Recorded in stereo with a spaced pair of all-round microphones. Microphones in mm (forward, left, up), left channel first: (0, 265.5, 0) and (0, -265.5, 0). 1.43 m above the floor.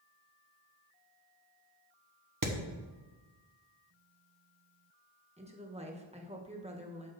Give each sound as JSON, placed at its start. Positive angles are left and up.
{"t": 2.4, "sound": "hammering", "side_deg": -40, "distance_m": 1.1}
{"t": 5.4, "sound": "a woman speaking", "side_deg": -15, "distance_m": 1.2}